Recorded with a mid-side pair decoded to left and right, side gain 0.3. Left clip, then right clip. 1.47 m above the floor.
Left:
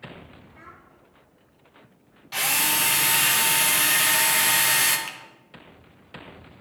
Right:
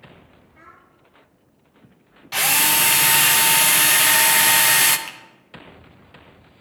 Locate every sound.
0.5 s a child speaking: 15° left, 1.9 m
2.3 s a drill: 60° right, 0.6 m
5.1 s a finger snap: straight ahead, 1.2 m